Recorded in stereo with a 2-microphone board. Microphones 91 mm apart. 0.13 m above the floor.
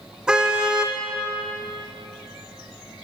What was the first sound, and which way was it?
A car horn, 10° right (ahead or behind).